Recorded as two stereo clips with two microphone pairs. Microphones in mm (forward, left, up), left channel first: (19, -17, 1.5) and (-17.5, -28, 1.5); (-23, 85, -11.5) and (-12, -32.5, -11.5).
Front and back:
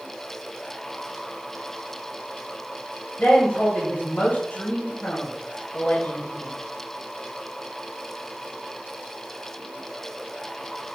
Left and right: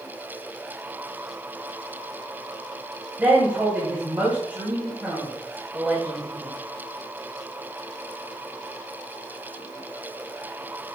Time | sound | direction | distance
3.2 | a woman speaking | 10° right | 2.5 m